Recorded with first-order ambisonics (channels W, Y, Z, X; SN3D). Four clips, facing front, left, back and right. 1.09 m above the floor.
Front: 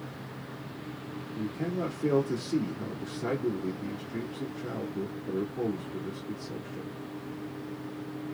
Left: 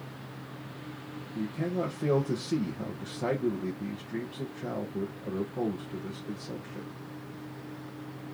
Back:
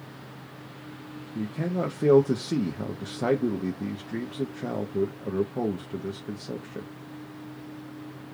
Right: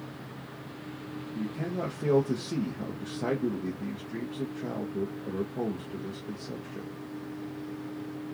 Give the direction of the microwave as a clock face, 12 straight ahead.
No microwave in this recording.